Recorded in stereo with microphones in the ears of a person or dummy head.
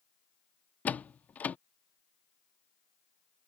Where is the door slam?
10° left (ahead or behind).